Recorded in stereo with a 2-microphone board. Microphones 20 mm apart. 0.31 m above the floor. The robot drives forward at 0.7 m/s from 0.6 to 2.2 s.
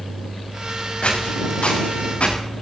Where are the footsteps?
75° left (ahead or behind), 8 m.